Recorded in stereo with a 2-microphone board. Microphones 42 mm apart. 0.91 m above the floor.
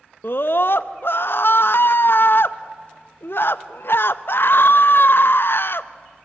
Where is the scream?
60° left (ahead or behind), 0.6 m.